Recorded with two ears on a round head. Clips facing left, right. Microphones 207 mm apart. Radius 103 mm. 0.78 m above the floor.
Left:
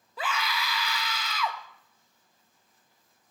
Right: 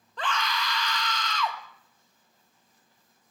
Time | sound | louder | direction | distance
0.2 | a scream | right 1 dB | 5° left (ahead or behind) | 0.9 m